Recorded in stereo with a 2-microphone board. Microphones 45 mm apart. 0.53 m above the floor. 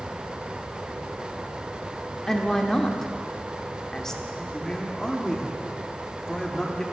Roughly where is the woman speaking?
Centre.